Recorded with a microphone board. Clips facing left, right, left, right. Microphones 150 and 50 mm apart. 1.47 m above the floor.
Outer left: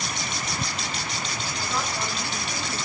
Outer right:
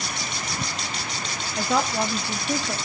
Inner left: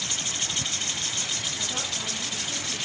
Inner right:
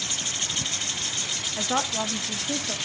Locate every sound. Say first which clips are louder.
1.6 s a woman speaking: outer right 8 dB, inner right 6 dB; 70° right (ahead or behind), 2 m; by 2.8 s 80° right, 2.5 m